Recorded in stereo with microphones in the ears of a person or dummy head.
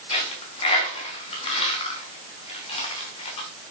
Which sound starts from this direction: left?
A dropped coin, at 0.1 s.